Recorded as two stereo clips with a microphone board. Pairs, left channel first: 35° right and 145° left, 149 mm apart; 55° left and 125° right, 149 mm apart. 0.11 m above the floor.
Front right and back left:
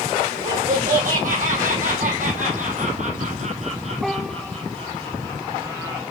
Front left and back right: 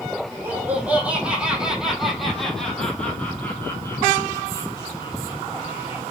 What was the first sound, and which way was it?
Laughter, 160° left.